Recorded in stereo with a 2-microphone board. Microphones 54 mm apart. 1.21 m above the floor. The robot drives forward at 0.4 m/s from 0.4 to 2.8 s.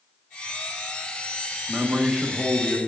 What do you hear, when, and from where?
1.7 s a man speaking: 20° right (ahead or behind), 1.2 m; by 2.8 s 15° right (ahead or behind), 1.7 m